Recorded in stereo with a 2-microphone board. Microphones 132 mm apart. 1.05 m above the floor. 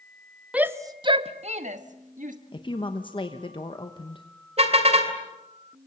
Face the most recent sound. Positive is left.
turn(degrees=-50)  # may be behind; listen again after turning